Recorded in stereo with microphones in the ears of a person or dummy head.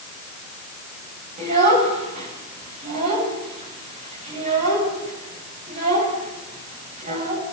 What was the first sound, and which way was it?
A child speaking, 40° right (ahead or behind).